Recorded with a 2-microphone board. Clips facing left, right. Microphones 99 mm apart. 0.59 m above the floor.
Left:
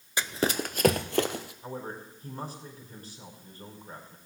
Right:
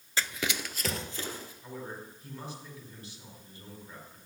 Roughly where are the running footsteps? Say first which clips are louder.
Left 5 dB; centre.